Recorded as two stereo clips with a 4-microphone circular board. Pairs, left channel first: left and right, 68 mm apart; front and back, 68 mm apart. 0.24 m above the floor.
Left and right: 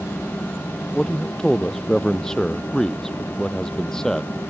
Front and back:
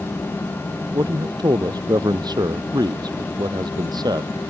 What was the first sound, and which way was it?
A man speaking, 170° left.